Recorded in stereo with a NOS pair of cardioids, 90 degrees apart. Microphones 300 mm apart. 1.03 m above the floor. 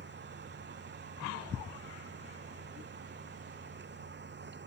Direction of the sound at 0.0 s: 35° right.